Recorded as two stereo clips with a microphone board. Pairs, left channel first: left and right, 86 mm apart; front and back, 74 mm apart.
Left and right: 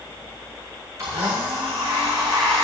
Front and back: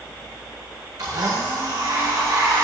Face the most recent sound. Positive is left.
turn(degrees=-145)